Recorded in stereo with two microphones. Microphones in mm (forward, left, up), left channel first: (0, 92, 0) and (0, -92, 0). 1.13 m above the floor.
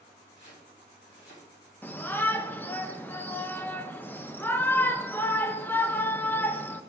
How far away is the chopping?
About 4.5 m.